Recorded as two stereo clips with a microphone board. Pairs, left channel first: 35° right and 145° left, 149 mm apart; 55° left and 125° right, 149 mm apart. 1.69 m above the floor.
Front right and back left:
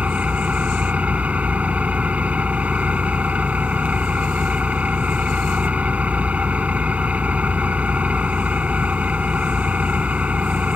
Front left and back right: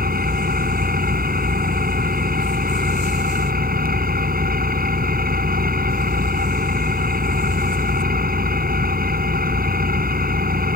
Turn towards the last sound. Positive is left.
turn(degrees=-135)